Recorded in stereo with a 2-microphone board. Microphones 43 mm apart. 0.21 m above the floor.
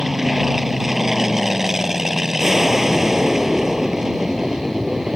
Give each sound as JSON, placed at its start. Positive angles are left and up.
{"t": 0.0, "sound": "an aircraft", "side_deg": -10}